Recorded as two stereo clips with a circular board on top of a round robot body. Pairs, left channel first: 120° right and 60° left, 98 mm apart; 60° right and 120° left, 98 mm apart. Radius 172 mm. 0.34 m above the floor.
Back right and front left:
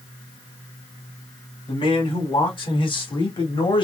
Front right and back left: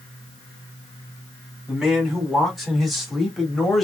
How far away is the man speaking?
About 4 m.